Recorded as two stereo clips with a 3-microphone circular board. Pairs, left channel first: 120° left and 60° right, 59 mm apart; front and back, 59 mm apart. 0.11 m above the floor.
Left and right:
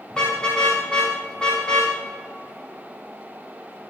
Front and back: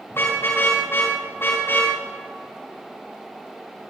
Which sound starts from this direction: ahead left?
A car horn, at 0.1 s.